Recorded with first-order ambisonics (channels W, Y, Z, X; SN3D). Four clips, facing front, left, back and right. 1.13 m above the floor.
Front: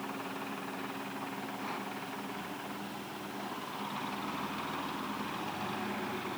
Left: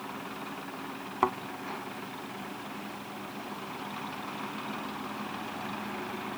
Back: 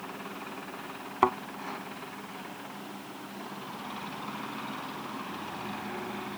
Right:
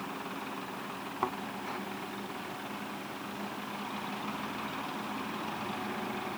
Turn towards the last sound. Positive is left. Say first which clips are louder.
# left 6 dB, back 16 dB
turn(degrees=160)